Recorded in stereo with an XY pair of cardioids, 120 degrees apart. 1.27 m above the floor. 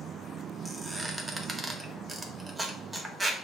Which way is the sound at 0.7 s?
15° right.